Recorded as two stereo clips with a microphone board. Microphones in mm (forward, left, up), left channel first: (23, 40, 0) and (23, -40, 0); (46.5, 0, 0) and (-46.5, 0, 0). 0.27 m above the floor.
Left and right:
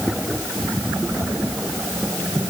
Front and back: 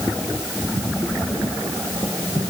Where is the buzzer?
No buzzer in this recording.